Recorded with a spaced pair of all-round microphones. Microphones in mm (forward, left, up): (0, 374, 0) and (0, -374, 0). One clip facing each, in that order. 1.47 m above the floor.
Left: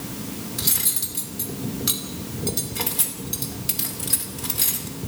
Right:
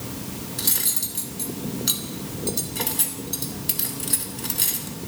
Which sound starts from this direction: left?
Cutlery clinking, at 0.6 s.